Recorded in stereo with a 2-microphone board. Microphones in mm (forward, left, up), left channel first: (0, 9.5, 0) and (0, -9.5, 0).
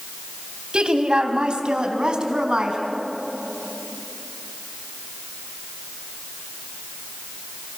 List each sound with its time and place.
0.7 s a woman speaking: 60° right (ahead or behind), 2 m; by 2.8 s 55° right (ahead or behind), 3.5 m